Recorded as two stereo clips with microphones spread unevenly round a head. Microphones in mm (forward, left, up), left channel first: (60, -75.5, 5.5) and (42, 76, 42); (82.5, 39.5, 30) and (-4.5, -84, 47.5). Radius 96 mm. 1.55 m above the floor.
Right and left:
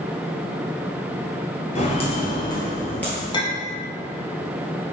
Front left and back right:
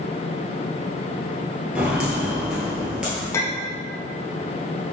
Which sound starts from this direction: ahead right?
Footsteps, at 1.8 s.